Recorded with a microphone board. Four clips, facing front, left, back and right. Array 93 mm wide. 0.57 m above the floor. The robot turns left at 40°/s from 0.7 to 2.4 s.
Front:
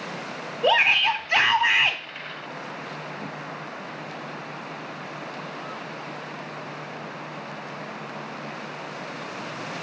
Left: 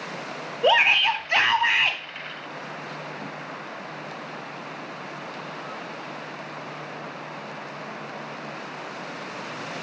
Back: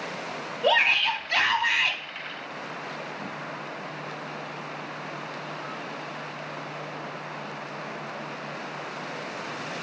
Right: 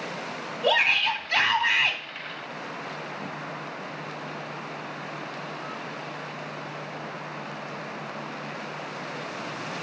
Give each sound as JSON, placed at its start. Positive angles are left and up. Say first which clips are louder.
{"t": 0.6, "sound": "a shout", "louder": "left 4 dB, front 2 dB", "azimuth_deg": 70, "distance_m": 0.6}